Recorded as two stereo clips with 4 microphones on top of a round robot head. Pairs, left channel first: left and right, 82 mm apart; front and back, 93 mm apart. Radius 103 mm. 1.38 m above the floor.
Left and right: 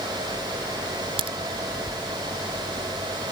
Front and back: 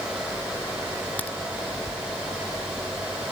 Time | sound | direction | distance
1.2 | a crack | 80° right | ?